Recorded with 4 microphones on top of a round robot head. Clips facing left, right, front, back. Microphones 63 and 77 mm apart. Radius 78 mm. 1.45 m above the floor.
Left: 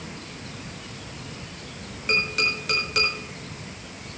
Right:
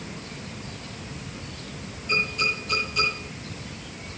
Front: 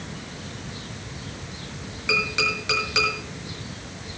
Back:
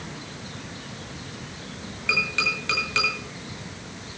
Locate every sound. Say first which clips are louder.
2.1 s tapping: left 1 dB, front 1 dB; 70° left, 7 m